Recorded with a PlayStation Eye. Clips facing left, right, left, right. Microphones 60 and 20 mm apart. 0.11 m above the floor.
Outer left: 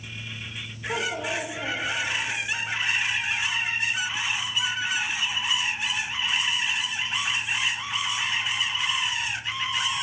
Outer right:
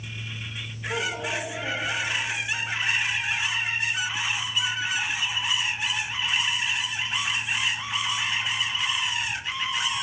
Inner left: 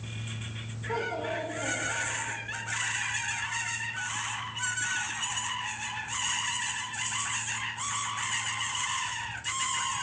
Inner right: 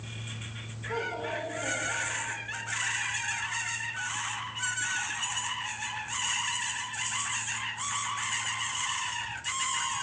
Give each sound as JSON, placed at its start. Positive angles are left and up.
{"t": 0.9, "sound": "a child speaking", "side_deg": 80, "distance_m": 6.5}